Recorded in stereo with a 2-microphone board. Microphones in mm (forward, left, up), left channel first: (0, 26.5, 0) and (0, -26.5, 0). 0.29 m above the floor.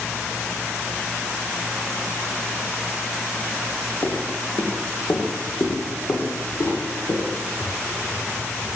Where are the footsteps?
65° left (ahead or behind), 1.5 m; by 8.7 s 60° left (ahead or behind), 4 m.